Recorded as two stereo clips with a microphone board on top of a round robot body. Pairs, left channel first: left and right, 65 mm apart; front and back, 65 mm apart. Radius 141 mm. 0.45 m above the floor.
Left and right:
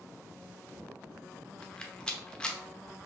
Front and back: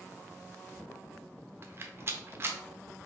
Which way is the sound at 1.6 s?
160° left.